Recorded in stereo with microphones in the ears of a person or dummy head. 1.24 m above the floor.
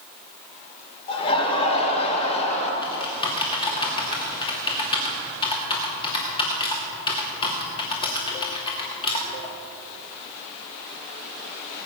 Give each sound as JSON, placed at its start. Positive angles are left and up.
{"t": 1.1, "sound": "laughter", "side_deg": 30, "distance_m": 4.0}
{"t": 2.8, "sound": "typing on a keyboard", "side_deg": 30, "distance_m": 2.5}